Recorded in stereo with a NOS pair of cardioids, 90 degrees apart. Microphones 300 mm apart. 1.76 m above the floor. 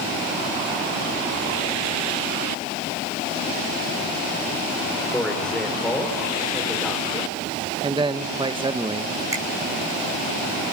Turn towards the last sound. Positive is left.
turn(degrees=-10)